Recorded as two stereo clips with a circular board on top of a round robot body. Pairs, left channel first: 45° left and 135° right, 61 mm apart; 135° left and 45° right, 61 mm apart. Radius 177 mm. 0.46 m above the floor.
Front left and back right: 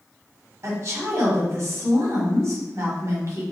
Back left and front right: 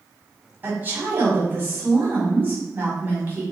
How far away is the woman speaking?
About 1.6 m.